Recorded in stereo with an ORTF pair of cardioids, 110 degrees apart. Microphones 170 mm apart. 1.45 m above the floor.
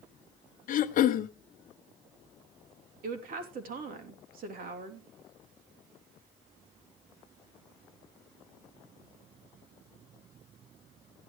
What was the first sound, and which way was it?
Throat clearing, 55° left.